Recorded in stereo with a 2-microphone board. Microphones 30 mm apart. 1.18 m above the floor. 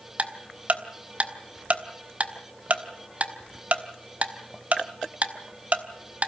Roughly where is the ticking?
Right.